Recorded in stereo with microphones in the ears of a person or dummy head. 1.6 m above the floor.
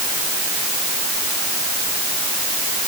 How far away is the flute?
I don't hear a flute.